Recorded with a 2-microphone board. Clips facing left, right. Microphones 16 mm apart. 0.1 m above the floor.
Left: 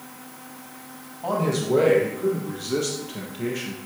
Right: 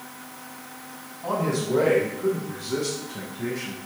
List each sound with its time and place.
1.2 s a man speaking: 50° left (ahead or behind), 3 m; by 3.8 s 60° left (ahead or behind), 3 m